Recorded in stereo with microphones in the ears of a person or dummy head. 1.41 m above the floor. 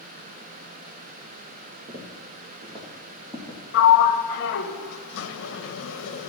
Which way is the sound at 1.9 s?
40° right (ahead or behind).